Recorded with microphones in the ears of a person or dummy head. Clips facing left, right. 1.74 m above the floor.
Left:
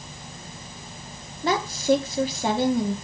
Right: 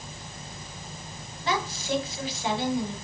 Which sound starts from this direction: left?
A woman speaking, at 1.4 s.